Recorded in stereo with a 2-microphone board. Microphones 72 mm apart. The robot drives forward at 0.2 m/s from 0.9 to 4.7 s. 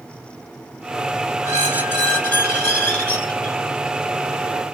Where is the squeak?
40° left (ahead or behind), 0.9 m; by 3.6 s 25° left (ahead or behind), 1.2 m.